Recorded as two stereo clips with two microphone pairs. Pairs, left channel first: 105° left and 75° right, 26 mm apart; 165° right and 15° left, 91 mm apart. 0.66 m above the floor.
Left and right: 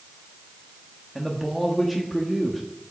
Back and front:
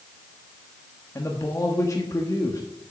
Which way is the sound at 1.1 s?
170° right.